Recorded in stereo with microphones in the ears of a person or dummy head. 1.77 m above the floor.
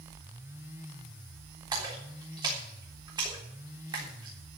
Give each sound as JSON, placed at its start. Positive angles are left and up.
{"t": 1.7, "sound": "a splash", "side_deg": -25, "distance_m": 3.5}